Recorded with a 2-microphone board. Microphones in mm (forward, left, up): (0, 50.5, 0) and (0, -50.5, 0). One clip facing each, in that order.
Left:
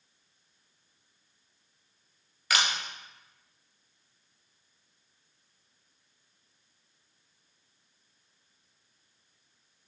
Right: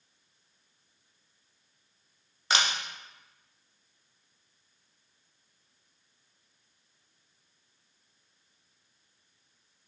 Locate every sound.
2.5 s a camera shutter: 25° right (ahead or behind), 1.2 m